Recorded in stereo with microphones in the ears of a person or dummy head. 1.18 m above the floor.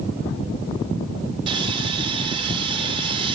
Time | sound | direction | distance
1.5 | sawing | 30° right (ahead or behind) | 4 m